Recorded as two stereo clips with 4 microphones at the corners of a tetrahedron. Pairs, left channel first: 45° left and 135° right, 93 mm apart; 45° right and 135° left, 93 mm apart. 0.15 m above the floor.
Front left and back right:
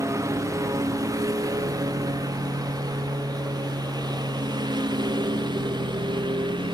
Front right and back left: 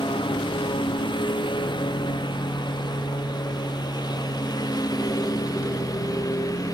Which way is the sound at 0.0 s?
75° right.